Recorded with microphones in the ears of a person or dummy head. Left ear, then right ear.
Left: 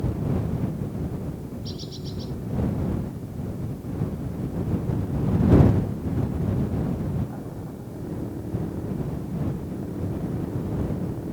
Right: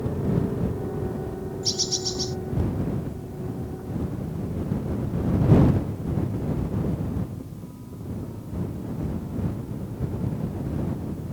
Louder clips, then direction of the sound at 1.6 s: Right 11 dB; 70° right (ahead or behind).